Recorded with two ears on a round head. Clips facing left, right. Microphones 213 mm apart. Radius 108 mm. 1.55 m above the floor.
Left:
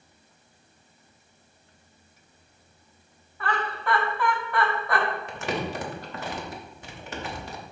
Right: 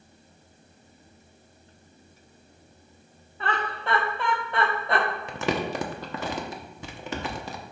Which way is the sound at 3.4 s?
20° right (ahead or behind).